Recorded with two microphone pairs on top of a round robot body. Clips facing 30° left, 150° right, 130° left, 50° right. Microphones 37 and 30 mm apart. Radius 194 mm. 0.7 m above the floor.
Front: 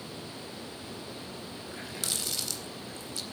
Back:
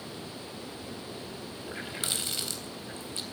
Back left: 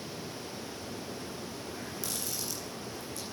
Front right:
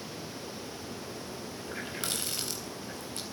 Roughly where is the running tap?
Right.